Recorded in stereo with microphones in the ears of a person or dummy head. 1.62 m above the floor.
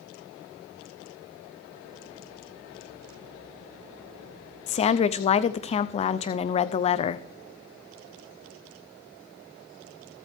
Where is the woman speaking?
35° left (ahead or behind), 0.6 m.